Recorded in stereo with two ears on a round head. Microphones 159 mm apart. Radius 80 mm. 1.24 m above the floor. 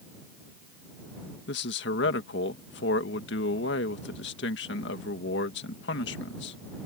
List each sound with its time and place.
1.5 s a man speaking: 70° left (ahead or behind)